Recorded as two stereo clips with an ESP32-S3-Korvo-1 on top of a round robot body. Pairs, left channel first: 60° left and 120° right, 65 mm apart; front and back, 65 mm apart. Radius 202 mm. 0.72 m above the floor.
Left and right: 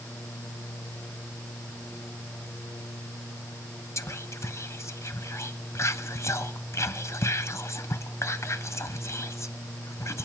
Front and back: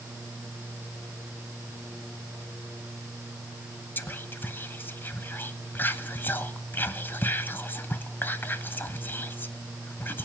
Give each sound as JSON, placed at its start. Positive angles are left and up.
{"t": 4.0, "sound": "whispering", "azimuth_deg": 45, "distance_m": 1.2}